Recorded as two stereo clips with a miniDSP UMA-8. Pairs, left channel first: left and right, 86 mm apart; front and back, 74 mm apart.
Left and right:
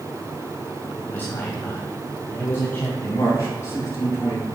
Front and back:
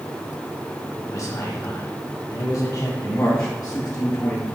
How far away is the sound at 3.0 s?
About 6 m.